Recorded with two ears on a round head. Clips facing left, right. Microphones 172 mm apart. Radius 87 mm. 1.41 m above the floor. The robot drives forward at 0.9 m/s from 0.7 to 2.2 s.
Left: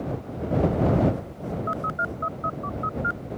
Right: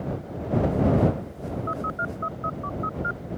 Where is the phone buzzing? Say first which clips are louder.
Even; 30° left (ahead or behind); by 3.2 s 35° left (ahead or behind).